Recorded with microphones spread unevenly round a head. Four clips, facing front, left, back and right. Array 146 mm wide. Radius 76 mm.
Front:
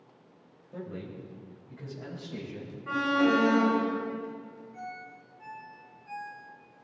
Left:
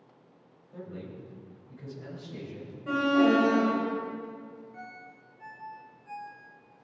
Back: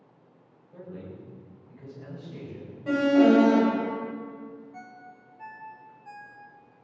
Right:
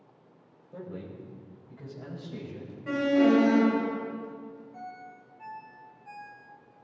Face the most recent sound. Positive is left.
turn(degrees=-140)